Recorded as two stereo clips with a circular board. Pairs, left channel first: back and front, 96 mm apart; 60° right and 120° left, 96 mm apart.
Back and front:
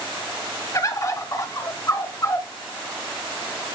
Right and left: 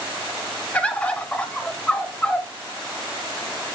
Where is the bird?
135° right, 1.0 m.